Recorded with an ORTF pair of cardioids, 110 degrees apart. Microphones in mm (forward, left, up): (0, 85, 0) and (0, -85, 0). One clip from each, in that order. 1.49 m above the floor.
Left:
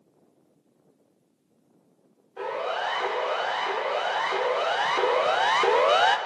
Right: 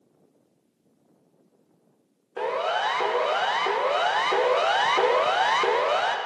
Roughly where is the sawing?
I don't hear sawing.